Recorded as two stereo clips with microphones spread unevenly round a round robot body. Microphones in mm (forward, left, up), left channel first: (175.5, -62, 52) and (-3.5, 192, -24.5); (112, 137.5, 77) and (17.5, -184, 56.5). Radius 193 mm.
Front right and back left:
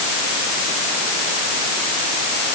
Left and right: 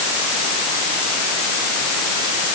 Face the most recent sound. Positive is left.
No sound to turn to.